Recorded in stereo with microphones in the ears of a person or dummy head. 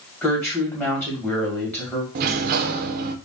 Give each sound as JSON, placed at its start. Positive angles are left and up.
{"t": 0.2, "sound": "a woman speaking", "side_deg": 15, "distance_m": 2.0}
{"t": 2.1, "sound": "a sliding door", "side_deg": -55, "distance_m": 0.6}